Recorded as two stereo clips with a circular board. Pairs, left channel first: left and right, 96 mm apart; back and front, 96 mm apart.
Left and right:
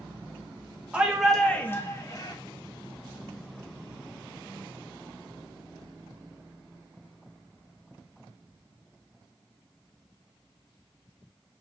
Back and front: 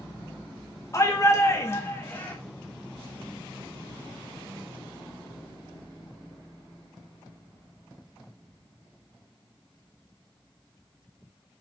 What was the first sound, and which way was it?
A shout, 160° right.